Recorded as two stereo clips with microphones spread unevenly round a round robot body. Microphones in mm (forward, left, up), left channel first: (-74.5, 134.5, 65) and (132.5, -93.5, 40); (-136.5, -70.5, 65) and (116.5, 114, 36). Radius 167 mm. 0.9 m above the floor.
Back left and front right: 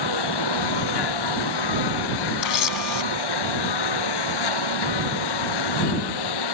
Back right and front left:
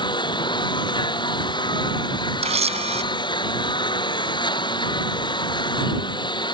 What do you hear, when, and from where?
0.0 s a lawn mower: 140° left
2.4 s a camera shutter: 110° left